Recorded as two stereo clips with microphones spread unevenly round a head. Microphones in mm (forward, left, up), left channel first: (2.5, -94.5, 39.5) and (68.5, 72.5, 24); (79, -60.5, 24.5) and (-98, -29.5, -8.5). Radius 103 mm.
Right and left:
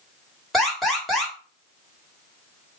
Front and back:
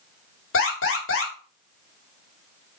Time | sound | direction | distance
0.5 | an alarm | 20° right | 3.5 m